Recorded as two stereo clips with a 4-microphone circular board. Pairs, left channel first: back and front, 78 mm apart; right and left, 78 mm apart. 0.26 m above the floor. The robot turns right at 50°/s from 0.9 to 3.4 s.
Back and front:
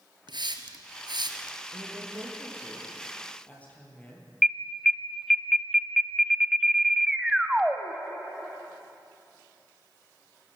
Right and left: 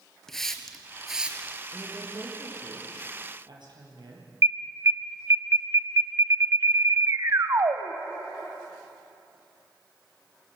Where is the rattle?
I don't hear a rattle.